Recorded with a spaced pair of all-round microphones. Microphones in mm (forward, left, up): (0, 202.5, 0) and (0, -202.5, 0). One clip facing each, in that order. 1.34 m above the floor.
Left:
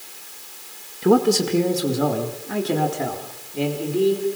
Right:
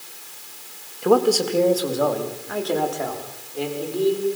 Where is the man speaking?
30° left (ahead or behind), 1.7 m; by 4.3 s 40° left (ahead or behind), 4.5 m.